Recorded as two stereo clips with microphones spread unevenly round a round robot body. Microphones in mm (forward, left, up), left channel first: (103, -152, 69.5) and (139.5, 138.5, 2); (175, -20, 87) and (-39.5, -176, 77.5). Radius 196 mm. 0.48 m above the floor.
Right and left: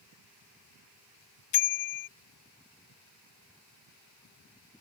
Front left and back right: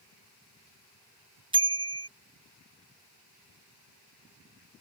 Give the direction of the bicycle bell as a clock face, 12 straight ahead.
2 o'clock.